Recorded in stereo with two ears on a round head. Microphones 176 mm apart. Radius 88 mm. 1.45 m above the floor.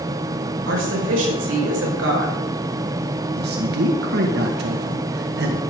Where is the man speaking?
55° right (ahead or behind), 1.8 m.